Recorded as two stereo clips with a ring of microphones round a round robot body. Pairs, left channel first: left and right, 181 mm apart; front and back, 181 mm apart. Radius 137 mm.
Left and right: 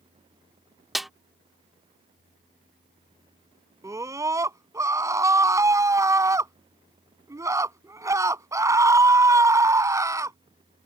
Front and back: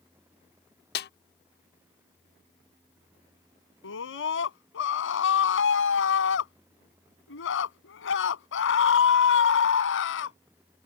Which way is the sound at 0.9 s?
Straight ahead.